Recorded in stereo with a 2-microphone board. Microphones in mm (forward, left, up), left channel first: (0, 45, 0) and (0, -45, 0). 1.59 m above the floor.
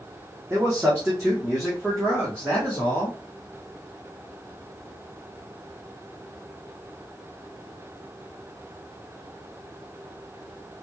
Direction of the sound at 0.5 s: 20° right (ahead or behind).